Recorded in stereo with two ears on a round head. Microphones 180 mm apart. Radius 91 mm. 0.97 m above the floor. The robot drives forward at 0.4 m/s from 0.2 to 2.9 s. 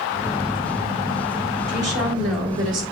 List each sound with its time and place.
1.7 s a woman speaking: 50° right (ahead or behind), 2 m; by 2.8 s 60° right (ahead or behind), 2.0 m